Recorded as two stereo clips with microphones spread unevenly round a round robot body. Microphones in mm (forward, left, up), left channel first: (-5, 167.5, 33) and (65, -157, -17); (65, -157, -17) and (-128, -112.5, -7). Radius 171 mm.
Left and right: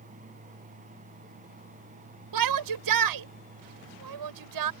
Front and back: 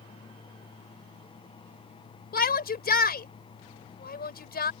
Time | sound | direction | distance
2.3 | a shout | 50° right | ?